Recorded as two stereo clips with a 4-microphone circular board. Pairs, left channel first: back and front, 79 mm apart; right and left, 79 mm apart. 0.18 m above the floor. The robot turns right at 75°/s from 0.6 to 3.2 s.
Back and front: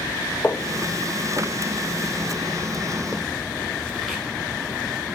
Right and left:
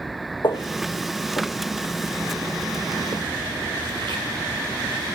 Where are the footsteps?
110° right, 1.0 m; by 5.2 s 95° left, 4 m.